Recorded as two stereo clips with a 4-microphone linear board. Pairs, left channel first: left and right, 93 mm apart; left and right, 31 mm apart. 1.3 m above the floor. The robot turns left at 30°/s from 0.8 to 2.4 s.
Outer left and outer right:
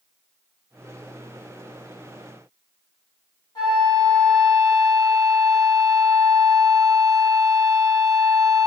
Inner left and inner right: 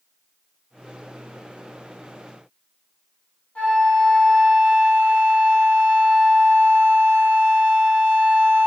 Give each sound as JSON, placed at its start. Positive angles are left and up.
{"t": 3.5, "sound": "a flute", "side_deg": 55, "distance_m": 1.5}